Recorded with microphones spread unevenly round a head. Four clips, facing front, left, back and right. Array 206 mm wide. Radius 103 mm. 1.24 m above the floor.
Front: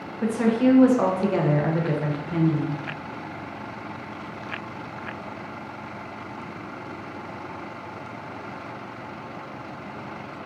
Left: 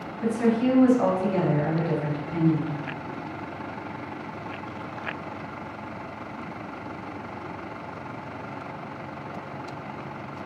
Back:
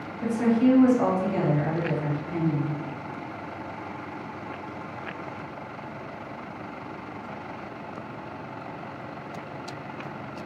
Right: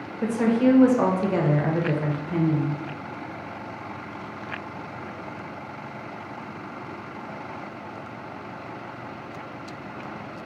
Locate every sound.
0.2 s a woman speaking: 55° right, 0.7 m